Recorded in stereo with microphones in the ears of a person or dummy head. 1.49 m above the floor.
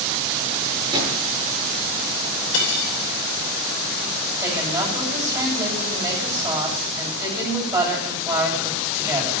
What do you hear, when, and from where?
0.9 s a drawer: 20° right (ahead or behind), 7.5 m
2.5 s cutlery clinking: 75° left (ahead or behind), 3 m
4.4 s a woman speaking: 15° right (ahead or behind), 9.5 m